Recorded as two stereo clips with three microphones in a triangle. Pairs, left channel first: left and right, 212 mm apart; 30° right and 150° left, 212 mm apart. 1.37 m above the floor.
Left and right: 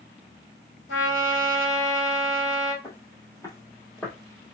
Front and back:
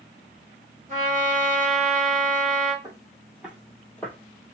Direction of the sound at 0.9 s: 100° left.